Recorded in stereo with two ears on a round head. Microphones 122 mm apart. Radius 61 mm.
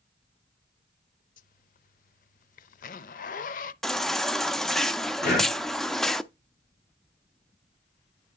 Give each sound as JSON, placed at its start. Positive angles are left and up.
{"t": 1.4, "sound": "a zipper", "side_deg": 65, "distance_m": 0.6}
{"t": 3.8, "sound": "a baby crying", "side_deg": 0, "distance_m": 0.5}
{"t": 5.2, "sound": "breathing", "side_deg": 70, "distance_m": 5.5}